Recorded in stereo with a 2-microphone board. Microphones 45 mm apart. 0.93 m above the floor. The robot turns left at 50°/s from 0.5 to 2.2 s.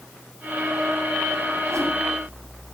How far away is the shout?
No shout in this recording.